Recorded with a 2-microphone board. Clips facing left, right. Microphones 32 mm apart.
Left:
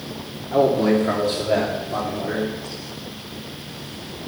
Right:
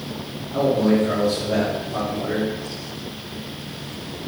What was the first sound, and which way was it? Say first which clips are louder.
A man speaking: left 1 dB; 70° left (ahead or behind).